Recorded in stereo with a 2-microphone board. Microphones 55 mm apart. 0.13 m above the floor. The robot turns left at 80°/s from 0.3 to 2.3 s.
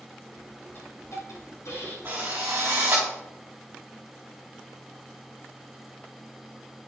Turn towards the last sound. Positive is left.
turn(degrees=-60)  # may be behind; listen again after turning